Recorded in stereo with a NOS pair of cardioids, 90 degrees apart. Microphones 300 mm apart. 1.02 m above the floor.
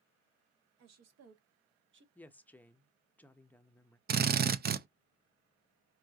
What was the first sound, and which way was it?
A woman speaking, 60° right.